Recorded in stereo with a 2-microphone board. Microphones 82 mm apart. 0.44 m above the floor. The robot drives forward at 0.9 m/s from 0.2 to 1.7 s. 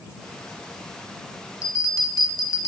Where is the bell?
45° left (ahead or behind), 0.9 m; by 2.7 s 40° left (ahead or behind), 1.0 m.